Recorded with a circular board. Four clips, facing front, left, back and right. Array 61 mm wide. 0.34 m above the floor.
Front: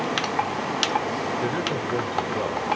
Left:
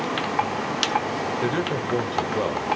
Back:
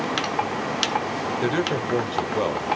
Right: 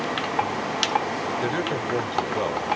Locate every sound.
1.4 s a man speaking: 175° right, 1.3 m